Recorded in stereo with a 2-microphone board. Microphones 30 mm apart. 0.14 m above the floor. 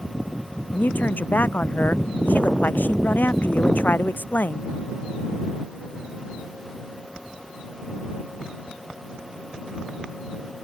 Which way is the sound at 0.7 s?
80° left.